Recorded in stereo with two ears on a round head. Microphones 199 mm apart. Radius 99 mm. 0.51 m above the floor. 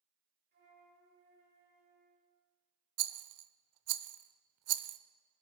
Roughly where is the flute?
Right.